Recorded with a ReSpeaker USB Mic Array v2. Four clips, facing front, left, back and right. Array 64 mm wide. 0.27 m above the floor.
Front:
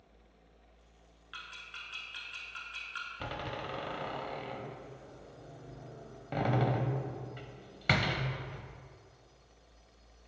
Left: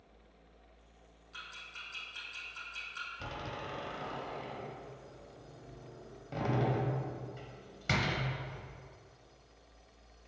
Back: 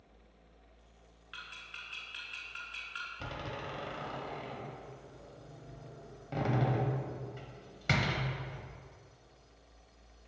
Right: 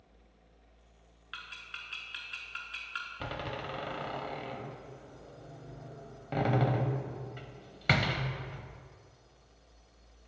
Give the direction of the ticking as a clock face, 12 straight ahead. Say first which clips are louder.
Right 3 dB, front 1 dB; 3 o'clock.